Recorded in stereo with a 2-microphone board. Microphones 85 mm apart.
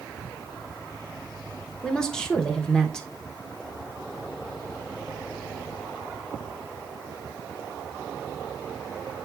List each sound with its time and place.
1.8 s a woman speaking: 10° left (ahead or behind), 0.9 m